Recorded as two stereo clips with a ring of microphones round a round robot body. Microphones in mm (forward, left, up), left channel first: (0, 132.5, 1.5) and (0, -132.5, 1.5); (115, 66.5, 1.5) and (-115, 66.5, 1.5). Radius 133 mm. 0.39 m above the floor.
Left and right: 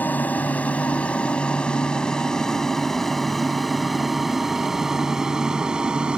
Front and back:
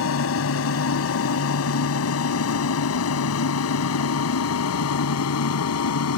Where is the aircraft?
5° left; by 6.2 s 5° right.